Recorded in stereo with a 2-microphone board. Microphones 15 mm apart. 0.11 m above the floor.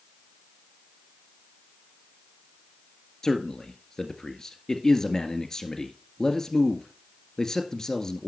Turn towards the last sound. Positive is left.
turn(degrees=30)  # may be behind; listen again after turning